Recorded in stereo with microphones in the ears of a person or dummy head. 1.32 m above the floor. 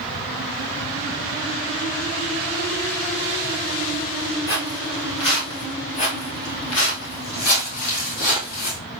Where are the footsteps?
35° left (ahead or behind), 2 m; by 8.8 s 60° left (ahead or behind), 3 m.